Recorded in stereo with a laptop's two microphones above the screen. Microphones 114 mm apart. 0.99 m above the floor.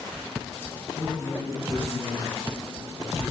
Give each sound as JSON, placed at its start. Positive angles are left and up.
{"t": 1.0, "sound": "a man speaking", "side_deg": 10, "distance_m": 9.5}